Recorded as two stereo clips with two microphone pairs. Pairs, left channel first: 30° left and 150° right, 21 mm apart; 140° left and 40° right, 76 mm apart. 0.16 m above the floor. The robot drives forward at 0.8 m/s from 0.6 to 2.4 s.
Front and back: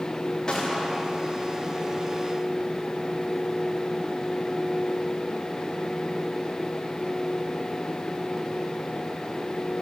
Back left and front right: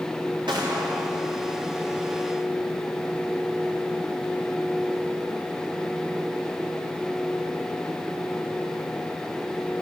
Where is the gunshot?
30° right, 9 m.